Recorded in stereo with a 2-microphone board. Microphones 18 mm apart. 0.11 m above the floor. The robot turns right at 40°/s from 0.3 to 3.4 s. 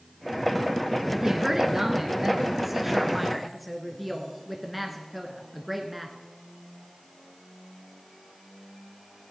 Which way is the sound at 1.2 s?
25° right (ahead or behind).